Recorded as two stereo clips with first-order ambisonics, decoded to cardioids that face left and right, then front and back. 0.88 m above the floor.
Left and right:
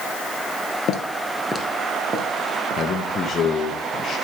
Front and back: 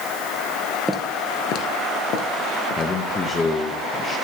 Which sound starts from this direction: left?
Footsteps, at 0.9 s.